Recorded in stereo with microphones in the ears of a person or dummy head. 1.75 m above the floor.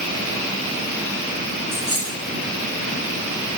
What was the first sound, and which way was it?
A dropped coin, 5° right (ahead or behind).